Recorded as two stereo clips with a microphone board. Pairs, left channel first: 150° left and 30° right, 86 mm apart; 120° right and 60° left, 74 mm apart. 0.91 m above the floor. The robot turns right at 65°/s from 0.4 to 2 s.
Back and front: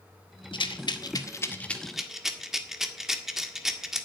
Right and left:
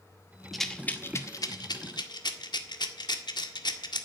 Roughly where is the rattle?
Behind left.